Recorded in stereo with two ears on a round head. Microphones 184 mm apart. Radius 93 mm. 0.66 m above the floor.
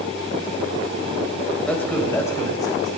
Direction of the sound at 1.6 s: 5° left (ahead or behind).